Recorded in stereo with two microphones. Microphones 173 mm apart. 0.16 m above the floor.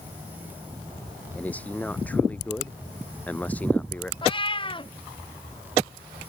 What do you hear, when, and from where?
1.4 s a man speaking: 10° left (ahead or behind)
4.2 s a cat meowing: 30° left (ahead or behind)